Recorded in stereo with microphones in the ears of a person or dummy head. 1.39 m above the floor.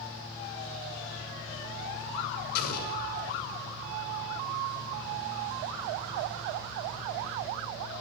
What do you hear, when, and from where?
2.5 s an explosion: 55° left (ahead or behind), 6.5 m